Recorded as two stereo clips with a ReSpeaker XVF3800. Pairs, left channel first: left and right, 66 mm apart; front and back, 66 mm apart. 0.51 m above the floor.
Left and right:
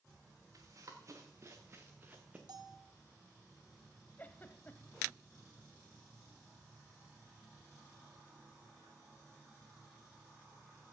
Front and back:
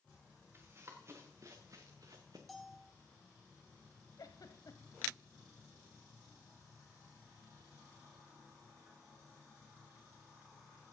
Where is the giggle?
25° left, 0.8 m.